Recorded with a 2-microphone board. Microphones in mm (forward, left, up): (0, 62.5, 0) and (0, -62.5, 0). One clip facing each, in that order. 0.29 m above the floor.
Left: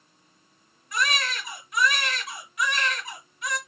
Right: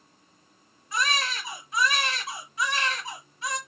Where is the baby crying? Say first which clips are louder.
Even; 30° right (ahead or behind), 1.8 m.